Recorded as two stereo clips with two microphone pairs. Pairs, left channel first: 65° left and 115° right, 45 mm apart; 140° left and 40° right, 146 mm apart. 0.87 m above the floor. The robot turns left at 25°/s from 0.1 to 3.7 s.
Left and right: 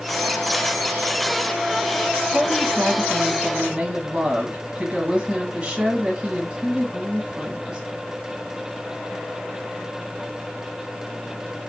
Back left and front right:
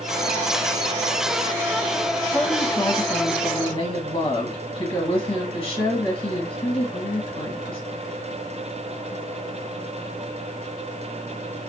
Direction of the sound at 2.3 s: 145° right.